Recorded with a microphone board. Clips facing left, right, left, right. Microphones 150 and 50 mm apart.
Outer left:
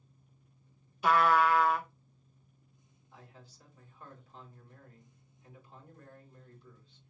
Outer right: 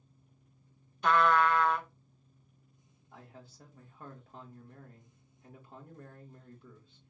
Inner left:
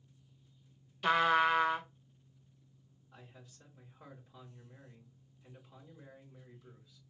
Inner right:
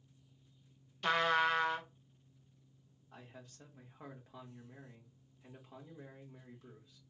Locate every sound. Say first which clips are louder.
1.0 s a trumpet: even, inner left 3 dB; 5° left (ahead or behind), 0.5 m
3.1 s a man speaking: outer right 3 dB, inner right 3 dB; 55° right (ahead or behind), 1.9 m